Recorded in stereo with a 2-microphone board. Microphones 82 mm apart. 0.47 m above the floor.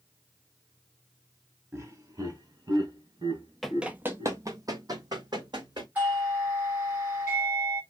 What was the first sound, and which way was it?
Laughter, 35° right (ahead or behind).